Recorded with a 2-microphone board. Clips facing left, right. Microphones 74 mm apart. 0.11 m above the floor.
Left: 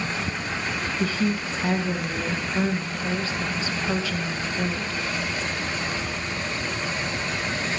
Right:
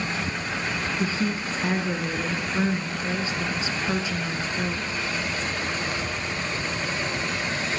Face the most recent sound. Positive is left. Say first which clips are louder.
# left 3 dB
turn(degrees=-20)  # may be behind; listen again after turning